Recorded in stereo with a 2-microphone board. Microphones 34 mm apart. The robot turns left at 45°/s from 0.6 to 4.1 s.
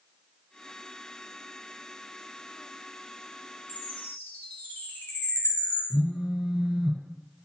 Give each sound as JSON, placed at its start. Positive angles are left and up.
{"t": 3.7, "sound": "a chime", "side_deg": 65, "distance_m": 1.0}
{"t": 5.9, "sound": "a phone buzzing", "side_deg": -45, "distance_m": 0.7}